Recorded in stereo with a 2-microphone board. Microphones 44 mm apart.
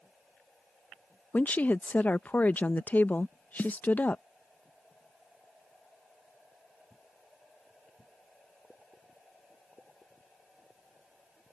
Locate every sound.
1.3 s a woman speaking: 40° left (ahead or behind)
3.6 s a snare drum: 50° left (ahead or behind)